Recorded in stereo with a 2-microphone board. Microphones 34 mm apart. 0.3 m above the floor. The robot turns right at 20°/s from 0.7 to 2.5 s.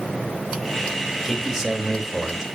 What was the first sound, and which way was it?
A man speaking, 10° right (ahead or behind).